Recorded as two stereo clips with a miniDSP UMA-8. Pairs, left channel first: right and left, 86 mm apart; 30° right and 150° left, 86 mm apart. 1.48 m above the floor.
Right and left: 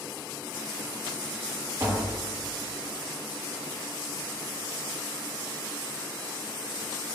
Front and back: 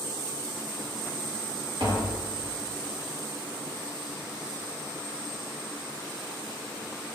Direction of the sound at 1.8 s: 130° left.